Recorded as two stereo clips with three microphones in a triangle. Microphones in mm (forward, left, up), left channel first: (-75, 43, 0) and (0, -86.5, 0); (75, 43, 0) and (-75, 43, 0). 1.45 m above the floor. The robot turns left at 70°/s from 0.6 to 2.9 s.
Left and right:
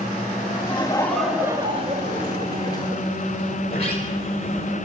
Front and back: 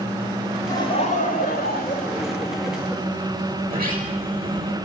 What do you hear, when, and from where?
0.7 s laughter: 70° left, 3.5 m; by 3.0 s 85° right, 3.5 m
3.6 s a sliding door: 170° left, 5 m